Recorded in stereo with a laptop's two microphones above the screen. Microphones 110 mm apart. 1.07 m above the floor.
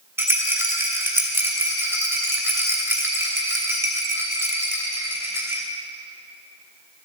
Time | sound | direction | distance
0.2 | a rattle | 20° right (ahead or behind) | 3 m